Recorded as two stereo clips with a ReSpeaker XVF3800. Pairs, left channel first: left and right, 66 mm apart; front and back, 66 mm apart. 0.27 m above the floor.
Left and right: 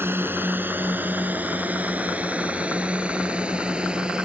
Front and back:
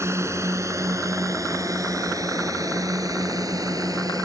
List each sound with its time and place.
0.0 s a drone: 145° right; by 4.3 s 165° right